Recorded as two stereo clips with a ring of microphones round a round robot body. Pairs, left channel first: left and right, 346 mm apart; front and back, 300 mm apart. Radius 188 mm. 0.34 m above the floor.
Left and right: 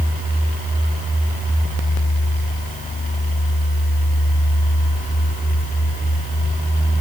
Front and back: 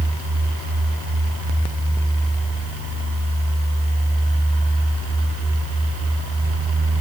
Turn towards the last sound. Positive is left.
No sound to turn to.